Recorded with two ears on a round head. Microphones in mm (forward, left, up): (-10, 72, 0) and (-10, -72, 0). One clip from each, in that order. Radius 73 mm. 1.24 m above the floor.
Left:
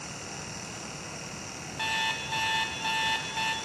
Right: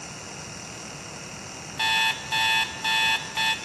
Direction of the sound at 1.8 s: 35° right (ahead or behind).